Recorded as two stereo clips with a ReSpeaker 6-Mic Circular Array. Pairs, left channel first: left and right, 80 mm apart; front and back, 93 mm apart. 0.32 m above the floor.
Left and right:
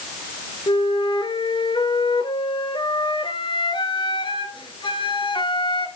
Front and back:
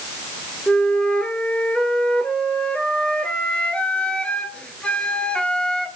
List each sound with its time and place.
0.7 s a flute: 80° left, 1.5 m